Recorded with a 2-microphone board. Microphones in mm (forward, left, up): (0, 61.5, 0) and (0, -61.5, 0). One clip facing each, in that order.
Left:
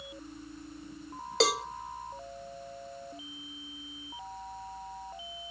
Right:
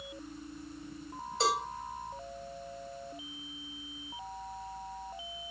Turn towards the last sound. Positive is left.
turn(degrees=75)  # may be behind; listen again after turning